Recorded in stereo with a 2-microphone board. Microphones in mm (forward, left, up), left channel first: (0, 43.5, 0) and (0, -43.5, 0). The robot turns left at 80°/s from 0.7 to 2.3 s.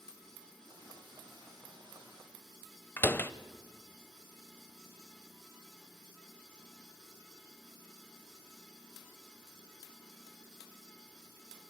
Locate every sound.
3.0 s a door slam: 25° left (ahead or behind), 0.8 m